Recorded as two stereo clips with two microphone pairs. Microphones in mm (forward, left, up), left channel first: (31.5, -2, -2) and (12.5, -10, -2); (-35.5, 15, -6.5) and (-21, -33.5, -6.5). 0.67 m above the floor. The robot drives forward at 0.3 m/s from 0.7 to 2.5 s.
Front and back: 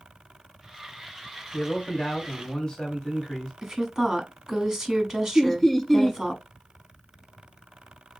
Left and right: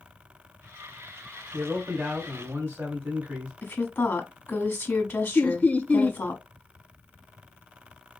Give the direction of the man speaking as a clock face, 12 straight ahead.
1 o'clock.